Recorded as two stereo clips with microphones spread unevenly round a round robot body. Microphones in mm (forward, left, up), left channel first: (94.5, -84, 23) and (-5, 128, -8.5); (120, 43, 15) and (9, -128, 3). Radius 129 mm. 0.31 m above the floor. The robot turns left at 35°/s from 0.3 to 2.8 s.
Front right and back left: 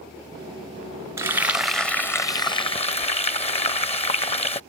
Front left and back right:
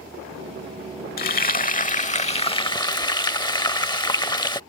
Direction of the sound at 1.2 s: 55° left.